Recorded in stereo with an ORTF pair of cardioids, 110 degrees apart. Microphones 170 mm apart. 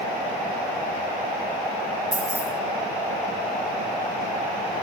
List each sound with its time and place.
2.1 s keys jangling: 5° right, 0.6 m